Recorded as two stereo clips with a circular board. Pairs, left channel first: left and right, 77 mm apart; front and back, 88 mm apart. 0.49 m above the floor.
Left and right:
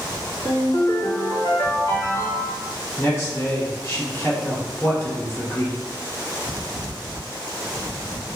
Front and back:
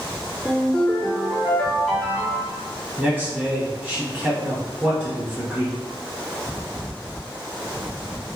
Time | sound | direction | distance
0.4 | a ringtone | 80° left | 1.5 m
3.0 | a man speaking | 120° left | 1.5 m